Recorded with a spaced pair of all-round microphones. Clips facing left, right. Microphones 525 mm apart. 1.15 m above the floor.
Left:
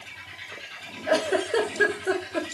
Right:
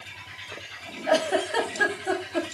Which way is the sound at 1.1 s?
20° right (ahead or behind).